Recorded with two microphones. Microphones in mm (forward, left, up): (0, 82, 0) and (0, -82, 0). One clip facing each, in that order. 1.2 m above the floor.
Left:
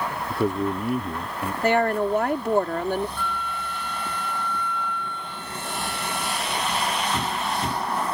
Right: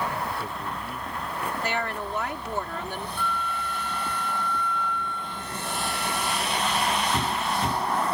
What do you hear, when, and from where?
0.3 s a man speaking: 80° left
1.6 s a woman speaking: 50° left (ahead or behind)
3.2 s a flute: 65° left (ahead or behind)